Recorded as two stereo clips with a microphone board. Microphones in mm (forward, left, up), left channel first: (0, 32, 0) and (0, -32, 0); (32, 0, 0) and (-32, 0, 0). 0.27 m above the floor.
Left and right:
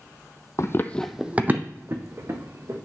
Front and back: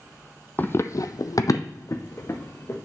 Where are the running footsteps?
60° left, 0.6 m; by 2.8 s 55° right, 1.8 m.